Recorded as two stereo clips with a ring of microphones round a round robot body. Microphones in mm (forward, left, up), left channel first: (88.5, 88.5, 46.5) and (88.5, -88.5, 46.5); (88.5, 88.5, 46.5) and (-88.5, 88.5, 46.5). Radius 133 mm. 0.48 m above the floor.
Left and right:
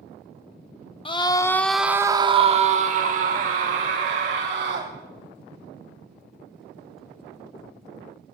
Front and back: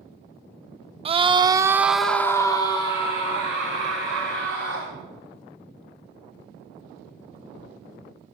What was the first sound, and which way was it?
A scream, 140° left.